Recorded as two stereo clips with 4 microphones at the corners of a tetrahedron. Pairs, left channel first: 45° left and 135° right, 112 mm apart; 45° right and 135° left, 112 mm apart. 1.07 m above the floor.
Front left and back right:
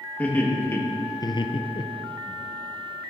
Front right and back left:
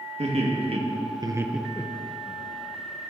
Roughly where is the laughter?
Behind left.